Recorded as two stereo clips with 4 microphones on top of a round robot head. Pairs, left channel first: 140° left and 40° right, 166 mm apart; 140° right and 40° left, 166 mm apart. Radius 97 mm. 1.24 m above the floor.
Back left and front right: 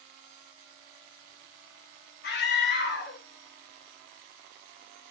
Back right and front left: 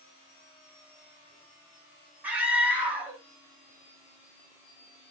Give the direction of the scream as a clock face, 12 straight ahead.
8 o'clock.